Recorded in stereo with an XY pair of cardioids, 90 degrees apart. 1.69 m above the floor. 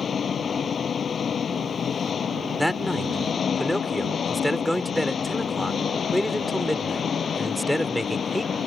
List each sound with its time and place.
0.0 s an engine running: 50° left
2.6 s a man speaking: 5° left